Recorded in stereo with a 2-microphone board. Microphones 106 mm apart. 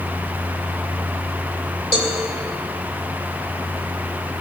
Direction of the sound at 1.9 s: 60° left (ahead or behind).